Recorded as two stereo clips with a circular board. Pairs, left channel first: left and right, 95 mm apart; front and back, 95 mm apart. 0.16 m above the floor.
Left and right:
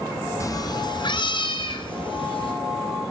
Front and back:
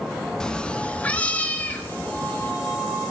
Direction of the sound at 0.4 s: 75° left.